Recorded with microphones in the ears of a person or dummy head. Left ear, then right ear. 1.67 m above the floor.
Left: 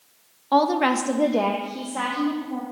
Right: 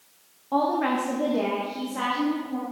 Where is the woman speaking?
65° left (ahead or behind), 0.7 m; by 2.6 s 10° left (ahead or behind), 1.4 m.